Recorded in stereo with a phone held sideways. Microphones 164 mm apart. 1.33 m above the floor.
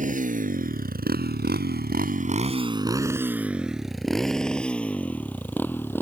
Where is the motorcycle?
50° right (ahead or behind); by 6.0 s 15° left (ahead or behind).